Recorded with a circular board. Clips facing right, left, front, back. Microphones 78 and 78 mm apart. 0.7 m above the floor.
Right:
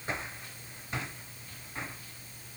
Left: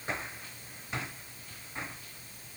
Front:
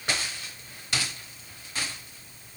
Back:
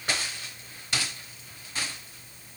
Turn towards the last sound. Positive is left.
No sound to turn to.